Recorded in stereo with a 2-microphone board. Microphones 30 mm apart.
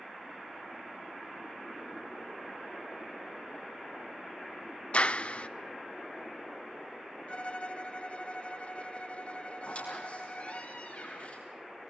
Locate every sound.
4.9 s a clap: 45° left (ahead or behind), 0.6 m
7.3 s a violin: 45° left (ahead or behind), 1.3 m
9.6 s a squeak: 45° left (ahead or behind), 7 m